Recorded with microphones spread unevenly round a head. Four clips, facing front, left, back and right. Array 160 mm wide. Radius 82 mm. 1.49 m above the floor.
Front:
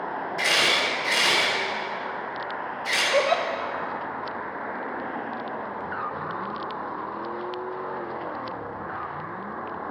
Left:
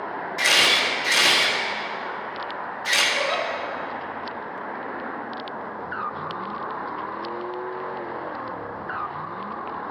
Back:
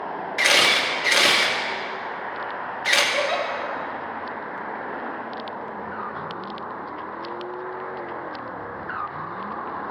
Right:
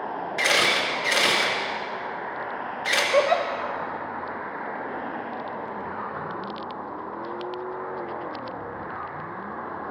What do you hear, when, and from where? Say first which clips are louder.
0.4 s a camera shutter: left 1 dB, back 4 dB; straight behind, 2 m
3.1 s a giggle: right 9 dB, front 2 dB; 60° right, 0.7 m